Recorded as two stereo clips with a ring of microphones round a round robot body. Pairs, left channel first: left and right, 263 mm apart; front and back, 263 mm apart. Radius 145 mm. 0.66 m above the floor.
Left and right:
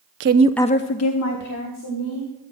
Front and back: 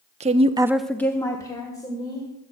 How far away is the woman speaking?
About 0.7 m.